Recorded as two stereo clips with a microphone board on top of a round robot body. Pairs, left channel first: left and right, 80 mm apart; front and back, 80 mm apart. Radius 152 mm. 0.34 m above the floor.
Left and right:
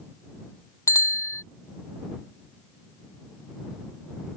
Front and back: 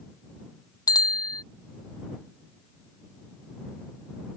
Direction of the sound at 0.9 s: 40° left.